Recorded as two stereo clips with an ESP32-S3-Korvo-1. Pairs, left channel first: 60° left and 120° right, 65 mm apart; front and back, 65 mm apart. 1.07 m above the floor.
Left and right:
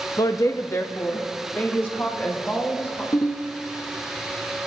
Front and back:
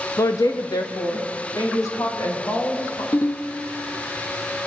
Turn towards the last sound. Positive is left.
turn(degrees=40)